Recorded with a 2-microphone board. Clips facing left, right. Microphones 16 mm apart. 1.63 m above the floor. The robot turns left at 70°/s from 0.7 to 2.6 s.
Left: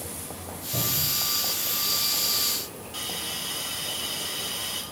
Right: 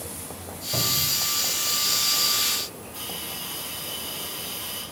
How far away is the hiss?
About 2.5 m.